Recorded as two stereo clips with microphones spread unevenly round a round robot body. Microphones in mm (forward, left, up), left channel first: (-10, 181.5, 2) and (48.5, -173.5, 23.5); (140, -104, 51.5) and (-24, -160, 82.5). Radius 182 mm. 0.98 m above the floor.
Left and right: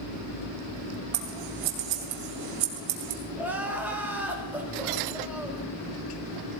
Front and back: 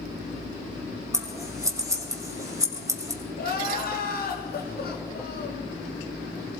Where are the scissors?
90° right, 2 m.